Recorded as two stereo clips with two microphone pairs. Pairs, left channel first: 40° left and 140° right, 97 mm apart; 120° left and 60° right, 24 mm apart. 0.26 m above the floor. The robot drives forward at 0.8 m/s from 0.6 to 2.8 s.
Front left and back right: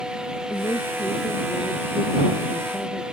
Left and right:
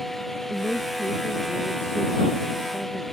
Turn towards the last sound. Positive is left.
turn(degrees=115)